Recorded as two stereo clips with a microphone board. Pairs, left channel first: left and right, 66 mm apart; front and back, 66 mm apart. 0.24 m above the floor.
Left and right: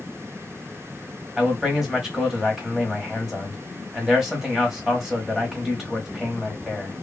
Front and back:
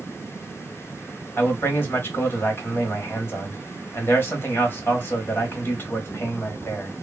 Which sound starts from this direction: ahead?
A man speaking, at 1.4 s.